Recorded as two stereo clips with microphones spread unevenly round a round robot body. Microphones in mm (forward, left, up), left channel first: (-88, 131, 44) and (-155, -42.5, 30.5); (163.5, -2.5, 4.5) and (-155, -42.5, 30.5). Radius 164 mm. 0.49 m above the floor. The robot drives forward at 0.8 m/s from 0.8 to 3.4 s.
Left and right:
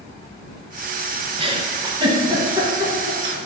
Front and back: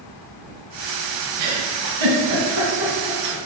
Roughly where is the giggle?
Behind.